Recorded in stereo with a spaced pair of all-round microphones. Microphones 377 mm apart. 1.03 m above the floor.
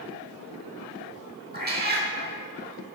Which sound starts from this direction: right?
A cat meowing, at 1.5 s.